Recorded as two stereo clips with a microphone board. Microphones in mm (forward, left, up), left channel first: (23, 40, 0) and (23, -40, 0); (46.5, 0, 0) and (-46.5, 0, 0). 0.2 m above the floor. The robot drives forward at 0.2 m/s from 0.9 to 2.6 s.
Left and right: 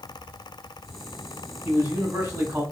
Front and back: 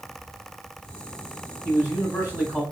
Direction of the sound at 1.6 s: 125° right.